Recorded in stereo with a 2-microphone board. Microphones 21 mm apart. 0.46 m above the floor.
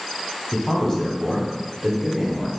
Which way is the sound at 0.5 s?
25° left (ahead or behind).